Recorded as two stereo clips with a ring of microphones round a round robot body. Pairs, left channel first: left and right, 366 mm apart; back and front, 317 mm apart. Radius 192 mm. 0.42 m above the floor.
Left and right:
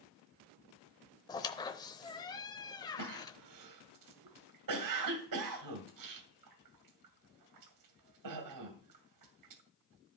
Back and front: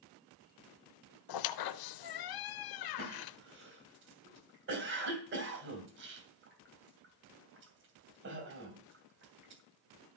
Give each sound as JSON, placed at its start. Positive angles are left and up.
{"t": 1.3, "sound": "a squeak", "azimuth_deg": 170, "distance_m": 0.7}
{"t": 3.0, "sound": "a cough", "azimuth_deg": -55, "distance_m": 2.0}